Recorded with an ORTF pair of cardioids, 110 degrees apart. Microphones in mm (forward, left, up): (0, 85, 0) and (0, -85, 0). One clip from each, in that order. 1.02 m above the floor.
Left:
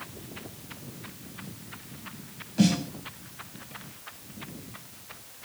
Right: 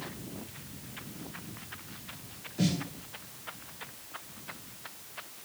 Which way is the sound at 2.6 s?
50° left.